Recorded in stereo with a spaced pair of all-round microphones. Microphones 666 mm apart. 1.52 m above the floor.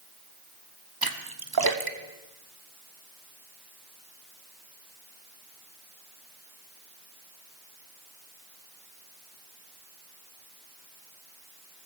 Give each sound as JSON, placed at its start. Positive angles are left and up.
{"t": 1.0, "sound": "a splash", "side_deg": -35, "distance_m": 1.0}